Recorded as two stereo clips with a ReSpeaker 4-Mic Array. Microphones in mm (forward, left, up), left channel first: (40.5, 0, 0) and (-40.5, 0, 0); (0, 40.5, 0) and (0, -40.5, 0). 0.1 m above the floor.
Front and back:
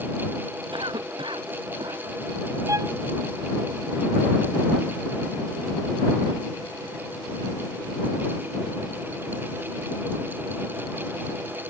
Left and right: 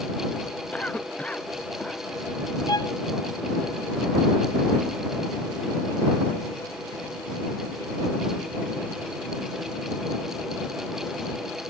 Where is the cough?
165° left.